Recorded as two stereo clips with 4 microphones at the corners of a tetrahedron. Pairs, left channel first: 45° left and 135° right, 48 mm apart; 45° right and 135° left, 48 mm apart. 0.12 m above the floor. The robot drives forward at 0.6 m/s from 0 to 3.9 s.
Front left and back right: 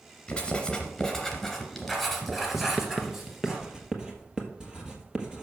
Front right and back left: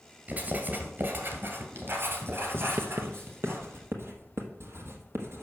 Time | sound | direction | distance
0.3 | writing | 105° left | 1.9 m
2.5 | writing | 120° left | 0.9 m